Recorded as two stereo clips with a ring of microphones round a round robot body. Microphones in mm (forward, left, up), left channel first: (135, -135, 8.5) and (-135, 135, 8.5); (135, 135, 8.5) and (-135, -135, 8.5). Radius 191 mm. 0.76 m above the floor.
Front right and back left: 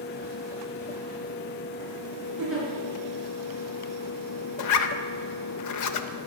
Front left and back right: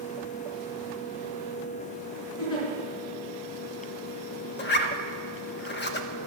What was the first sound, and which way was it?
A giggle, 45° left.